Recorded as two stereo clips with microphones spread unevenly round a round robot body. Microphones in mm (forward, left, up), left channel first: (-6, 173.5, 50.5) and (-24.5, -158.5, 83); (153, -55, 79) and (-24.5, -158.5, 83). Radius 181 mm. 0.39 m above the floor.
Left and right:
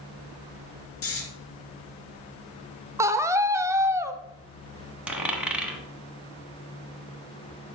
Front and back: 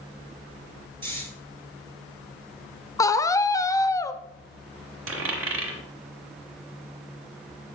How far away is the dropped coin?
About 1.2 m.